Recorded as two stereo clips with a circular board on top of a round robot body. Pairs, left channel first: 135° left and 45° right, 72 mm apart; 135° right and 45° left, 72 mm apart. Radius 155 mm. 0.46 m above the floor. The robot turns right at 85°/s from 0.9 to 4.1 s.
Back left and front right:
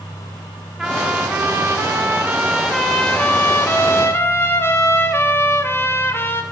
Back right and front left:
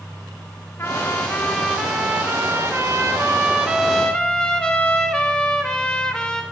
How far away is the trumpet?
About 1.4 m.